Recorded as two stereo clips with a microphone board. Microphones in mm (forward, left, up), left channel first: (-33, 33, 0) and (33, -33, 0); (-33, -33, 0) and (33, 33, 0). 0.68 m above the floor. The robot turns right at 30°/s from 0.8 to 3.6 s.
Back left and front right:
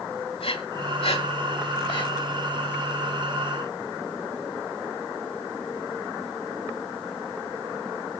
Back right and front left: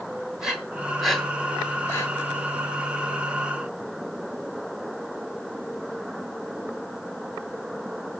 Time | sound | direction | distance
0.4 | breathing | 130° left | 1.5 m